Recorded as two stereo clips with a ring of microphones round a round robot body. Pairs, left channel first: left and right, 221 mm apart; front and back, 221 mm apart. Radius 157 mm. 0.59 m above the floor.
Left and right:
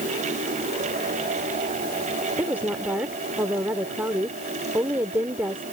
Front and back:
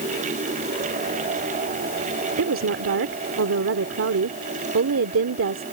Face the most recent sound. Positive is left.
turn(degrees=-170)